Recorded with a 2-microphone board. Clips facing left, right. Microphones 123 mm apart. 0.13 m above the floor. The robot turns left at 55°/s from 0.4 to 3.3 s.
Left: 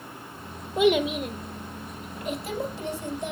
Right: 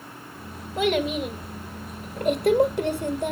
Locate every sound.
0.8 s a child speaking: 25° left, 2 m; by 3.3 s 115° right, 2 m